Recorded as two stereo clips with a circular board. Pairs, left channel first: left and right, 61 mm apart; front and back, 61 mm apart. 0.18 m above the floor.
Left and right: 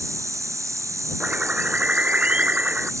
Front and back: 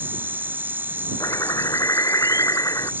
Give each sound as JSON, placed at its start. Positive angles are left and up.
{"t": 0.0, "sound": "an insect", "azimuth_deg": -125}
{"t": 1.2, "sound": "a bird", "azimuth_deg": -25}